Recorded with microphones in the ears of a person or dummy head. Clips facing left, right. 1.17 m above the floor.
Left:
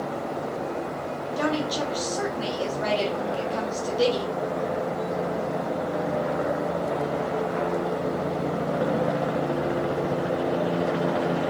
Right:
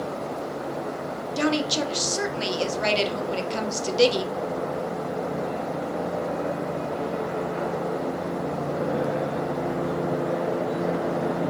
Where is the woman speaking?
30° right (ahead or behind), 0.7 m.